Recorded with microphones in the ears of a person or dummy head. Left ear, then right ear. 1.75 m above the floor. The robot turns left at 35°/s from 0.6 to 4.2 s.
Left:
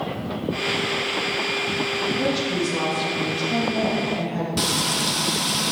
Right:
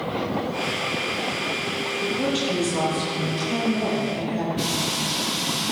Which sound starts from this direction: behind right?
A woman speaking, at 2.0 s.